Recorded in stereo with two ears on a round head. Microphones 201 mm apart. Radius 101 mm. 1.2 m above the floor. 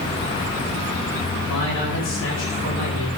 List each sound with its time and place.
1.5 s a man speaking: 60° left (ahead or behind), 7.5 m